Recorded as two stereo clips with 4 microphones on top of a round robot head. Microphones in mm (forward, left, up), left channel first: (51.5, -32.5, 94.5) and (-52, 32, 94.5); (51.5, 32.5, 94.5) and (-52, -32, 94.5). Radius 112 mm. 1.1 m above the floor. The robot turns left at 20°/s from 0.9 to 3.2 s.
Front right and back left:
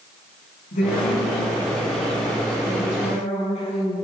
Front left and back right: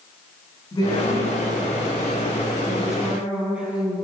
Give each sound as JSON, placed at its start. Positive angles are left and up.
{"t": 0.7, "sound": "a woman speaking", "azimuth_deg": -20, "distance_m": 9.5}